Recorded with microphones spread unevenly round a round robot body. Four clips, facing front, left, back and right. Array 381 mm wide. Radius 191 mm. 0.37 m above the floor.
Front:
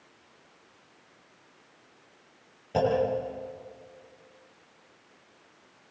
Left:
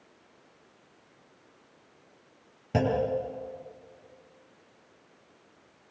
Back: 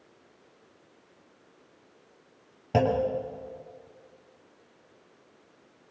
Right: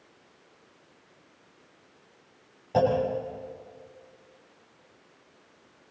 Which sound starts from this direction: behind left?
A clunk, at 2.7 s.